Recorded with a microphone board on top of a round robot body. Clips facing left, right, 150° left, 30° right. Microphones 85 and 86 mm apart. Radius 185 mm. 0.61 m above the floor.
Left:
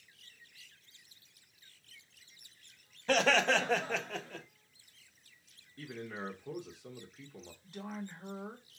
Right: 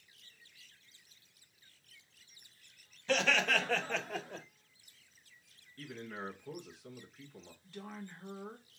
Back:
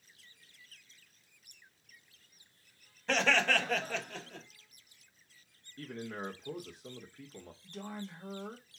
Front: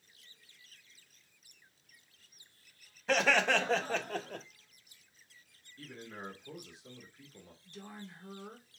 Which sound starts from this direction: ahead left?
Laughter, at 3.1 s.